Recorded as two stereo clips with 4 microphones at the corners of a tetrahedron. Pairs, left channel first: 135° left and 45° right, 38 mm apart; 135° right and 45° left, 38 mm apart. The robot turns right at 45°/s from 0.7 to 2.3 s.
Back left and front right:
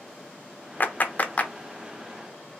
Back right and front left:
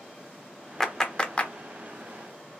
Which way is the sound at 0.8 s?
145° left.